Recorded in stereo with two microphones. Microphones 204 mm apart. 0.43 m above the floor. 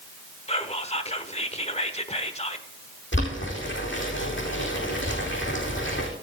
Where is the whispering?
30° left (ahead or behind), 1.1 m.